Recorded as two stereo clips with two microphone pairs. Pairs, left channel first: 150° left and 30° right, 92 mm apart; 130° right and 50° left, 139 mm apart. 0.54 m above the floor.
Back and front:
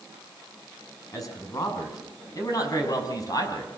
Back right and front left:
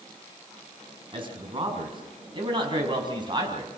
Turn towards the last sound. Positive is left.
turn(degrees=105)